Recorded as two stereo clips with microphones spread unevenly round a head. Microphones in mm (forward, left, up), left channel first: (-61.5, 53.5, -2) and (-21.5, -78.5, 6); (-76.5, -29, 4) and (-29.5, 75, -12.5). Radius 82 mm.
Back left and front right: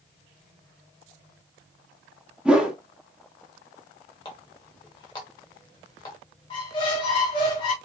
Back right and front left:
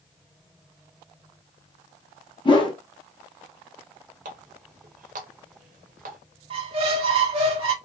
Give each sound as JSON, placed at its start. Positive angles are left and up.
{"t": 2.5, "sound": "a whoosh", "azimuth_deg": -155, "distance_m": 1.1}
{"t": 4.2, "sound": "a running tap", "azimuth_deg": 40, "distance_m": 0.8}
{"t": 6.5, "sound": "a squeak", "azimuth_deg": 65, "distance_m": 0.9}